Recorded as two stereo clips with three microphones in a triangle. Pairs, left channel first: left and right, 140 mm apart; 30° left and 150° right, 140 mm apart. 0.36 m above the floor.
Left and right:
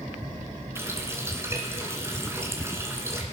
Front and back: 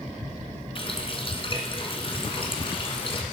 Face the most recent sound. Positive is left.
turn(degrees=-20)